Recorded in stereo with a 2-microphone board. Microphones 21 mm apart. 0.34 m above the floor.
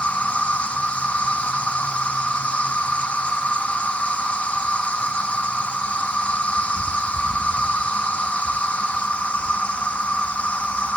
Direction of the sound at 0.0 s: 70° left (ahead or behind).